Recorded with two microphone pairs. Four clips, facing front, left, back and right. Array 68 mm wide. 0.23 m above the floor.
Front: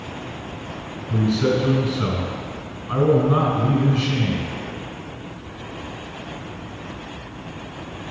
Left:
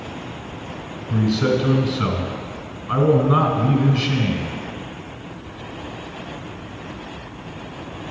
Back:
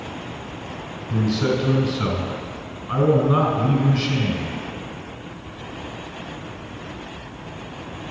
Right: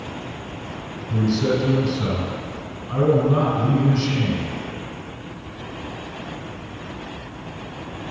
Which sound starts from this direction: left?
A man speaking, at 1.1 s.